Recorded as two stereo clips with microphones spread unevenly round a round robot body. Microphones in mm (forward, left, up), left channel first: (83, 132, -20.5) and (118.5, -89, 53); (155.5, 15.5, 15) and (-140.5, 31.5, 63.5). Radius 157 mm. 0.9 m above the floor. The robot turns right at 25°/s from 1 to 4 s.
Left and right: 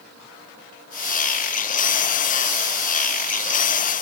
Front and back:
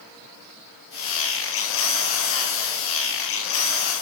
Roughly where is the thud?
I don't hear a thud.